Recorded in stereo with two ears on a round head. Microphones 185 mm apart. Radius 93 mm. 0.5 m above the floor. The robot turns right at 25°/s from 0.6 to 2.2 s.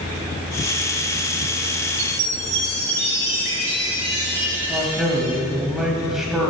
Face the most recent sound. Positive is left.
turn(degrees=0)  # may be behind; listen again after turning